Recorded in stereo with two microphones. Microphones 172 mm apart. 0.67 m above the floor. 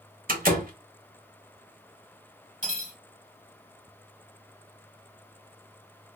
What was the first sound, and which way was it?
A door slam, 55° right (ahead or behind).